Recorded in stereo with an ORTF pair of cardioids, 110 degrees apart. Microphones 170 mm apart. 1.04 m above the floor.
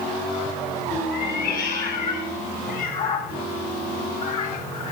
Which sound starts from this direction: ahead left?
A cat meowing, at 1.1 s.